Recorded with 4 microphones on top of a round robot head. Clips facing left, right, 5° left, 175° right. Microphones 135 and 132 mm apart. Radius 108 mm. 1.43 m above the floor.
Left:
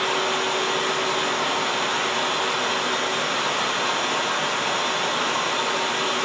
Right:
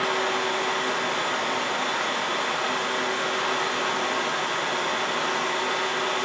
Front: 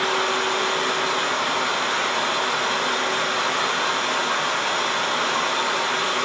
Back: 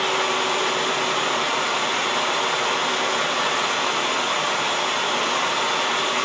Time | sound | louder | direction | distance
0.0 | running water | left 1 dB, even | 115° left | 4.5 m